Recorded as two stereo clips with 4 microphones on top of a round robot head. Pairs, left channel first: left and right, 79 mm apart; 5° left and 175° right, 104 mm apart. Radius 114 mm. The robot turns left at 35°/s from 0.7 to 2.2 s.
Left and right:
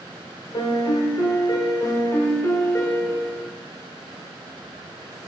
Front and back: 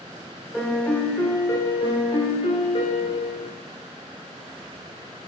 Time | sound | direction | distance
0.5 | a piano | 85° left | 1.8 m